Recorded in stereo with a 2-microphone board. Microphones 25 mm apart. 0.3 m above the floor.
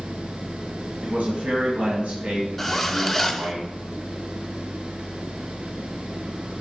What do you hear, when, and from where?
1.0 s a man speaking: 60° right (ahead or behind), 2 m
2.6 s a zipper: 5° left (ahead or behind), 0.8 m